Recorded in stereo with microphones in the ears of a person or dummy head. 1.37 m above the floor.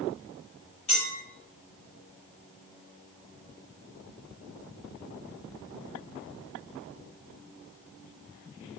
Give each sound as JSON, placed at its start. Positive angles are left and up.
{"t": 0.9, "sound": "a clink", "side_deg": 35, "distance_m": 2.0}